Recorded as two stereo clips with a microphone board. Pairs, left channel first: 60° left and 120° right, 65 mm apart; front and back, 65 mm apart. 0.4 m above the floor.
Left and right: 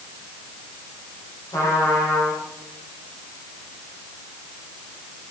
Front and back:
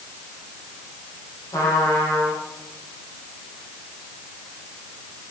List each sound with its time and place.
1.5 s a trumpet: 30° left, 8.5 m